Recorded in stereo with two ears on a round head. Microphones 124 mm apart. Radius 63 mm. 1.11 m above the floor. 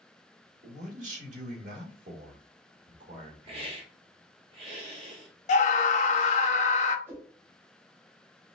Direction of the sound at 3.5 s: 40° right (ahead or behind).